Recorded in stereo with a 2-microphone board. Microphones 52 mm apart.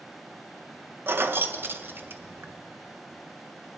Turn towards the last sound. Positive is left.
turn(degrees=-50)  # may be behind; listen again after turning